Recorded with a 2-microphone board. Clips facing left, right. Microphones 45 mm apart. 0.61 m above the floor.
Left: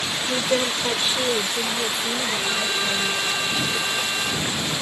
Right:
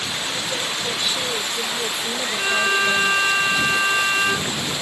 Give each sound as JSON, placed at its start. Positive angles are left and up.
{"t": 0.3, "sound": "a woman speaking", "side_deg": 55}
{"t": 2.4, "sound": "a violin", "side_deg": -40}